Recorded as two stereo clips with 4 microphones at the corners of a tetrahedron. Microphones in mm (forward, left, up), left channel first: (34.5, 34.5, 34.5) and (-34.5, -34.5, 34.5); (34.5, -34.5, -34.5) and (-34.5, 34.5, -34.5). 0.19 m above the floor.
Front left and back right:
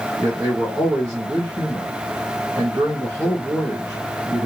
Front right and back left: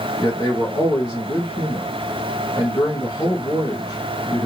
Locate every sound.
0.2 s a man speaking: 90° right, 2 m